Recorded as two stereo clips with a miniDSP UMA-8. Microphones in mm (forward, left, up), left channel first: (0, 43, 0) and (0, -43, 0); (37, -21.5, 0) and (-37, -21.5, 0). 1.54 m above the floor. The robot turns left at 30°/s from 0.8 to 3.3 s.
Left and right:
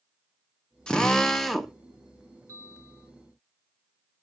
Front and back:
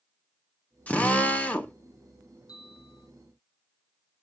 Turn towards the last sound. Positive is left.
turn(degrees=-55)